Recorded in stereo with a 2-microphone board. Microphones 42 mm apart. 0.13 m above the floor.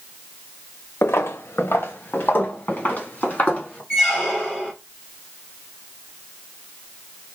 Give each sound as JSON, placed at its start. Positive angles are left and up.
{"t": 1.0, "sound": "footsteps", "side_deg": 80, "distance_m": 0.8}
{"t": 3.9, "sound": "a squeak", "side_deg": 15, "distance_m": 2.5}